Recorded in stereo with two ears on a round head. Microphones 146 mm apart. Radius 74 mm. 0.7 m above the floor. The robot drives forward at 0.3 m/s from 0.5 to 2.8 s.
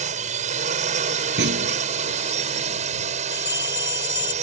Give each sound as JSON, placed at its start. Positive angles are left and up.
{"t": 0.0, "sound": "a drone", "side_deg": -50}
{"t": 1.4, "sound": "a clunk", "side_deg": -70}
{"t": 3.3, "sound": "a bell", "side_deg": 25}